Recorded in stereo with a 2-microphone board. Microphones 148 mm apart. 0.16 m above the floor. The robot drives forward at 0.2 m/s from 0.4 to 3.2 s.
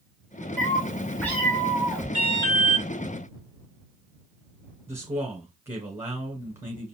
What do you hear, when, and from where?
0.6 s a cat meowing: 10° left (ahead or behind), 2 m
2.1 s an alarm: 30° left (ahead or behind), 3.5 m
4.9 s a man speaking: 20° right (ahead or behind), 1.2 m